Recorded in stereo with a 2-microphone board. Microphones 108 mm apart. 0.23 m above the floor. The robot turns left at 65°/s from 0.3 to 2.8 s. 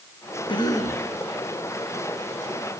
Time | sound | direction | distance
0.5 | a cough | 50° left | 4 m